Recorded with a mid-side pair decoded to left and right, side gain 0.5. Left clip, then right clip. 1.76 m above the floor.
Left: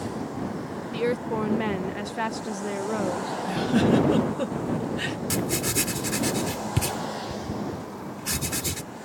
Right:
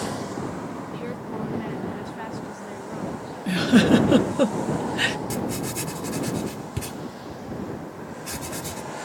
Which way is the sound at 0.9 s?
55° left.